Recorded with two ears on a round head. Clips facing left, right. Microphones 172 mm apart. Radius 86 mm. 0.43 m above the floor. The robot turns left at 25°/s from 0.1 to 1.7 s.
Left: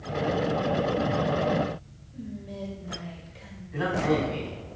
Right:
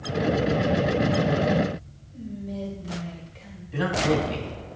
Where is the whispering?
10° left (ahead or behind), 1.9 m.